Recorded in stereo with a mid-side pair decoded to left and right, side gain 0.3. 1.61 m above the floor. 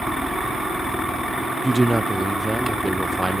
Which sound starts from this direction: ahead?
A man speaking, at 1.6 s.